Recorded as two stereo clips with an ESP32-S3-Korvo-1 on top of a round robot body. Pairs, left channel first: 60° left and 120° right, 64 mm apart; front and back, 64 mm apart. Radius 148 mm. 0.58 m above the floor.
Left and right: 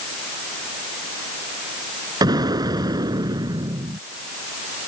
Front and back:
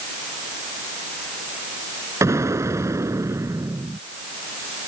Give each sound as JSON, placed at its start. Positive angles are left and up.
{"t": 2.2, "sound": "an explosion", "azimuth_deg": -135}